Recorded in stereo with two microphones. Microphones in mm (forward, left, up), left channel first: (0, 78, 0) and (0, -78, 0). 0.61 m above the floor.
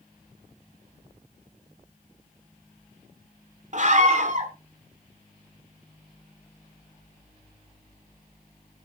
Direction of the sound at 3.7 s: 50° right (ahead or behind).